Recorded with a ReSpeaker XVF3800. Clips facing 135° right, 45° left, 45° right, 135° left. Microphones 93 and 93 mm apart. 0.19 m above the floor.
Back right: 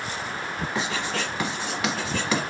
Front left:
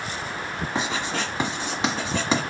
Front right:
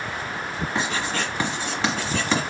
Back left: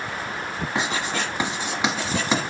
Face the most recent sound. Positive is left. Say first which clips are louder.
# front left 2 dB, back left 1 dB
turn(degrees=75)